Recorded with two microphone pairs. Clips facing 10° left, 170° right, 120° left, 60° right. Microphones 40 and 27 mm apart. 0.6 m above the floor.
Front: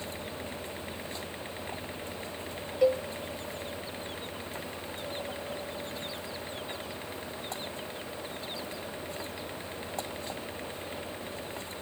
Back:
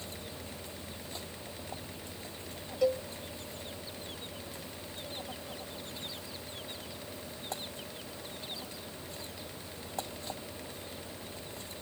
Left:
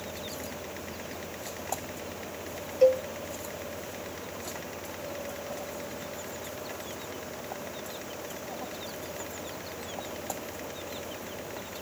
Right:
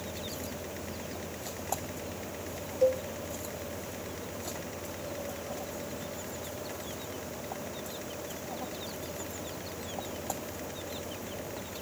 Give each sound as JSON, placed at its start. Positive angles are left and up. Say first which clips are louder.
{"t": 2.8, "sound": "a cowbell", "louder": "front 4 dB, left 5 dB", "azimuth_deg": 80}